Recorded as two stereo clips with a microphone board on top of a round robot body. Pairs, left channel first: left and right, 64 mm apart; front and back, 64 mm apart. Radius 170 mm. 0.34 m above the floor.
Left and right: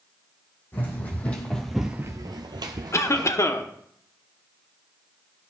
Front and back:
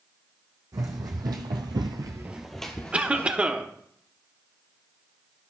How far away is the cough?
About 1.3 m.